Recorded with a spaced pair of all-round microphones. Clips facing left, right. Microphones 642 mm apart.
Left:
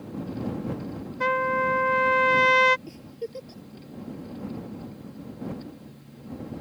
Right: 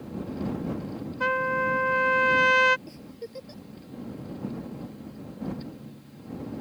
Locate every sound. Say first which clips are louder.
1.2 s a trumpet: left 3 dB; 50° left (ahead or behind)
2.9 s a giggle: left 4 dB; 60° left (ahead or behind)